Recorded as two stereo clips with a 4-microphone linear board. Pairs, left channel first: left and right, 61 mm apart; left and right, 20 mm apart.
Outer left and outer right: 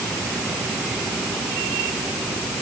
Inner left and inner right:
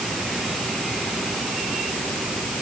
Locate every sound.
Only background noise.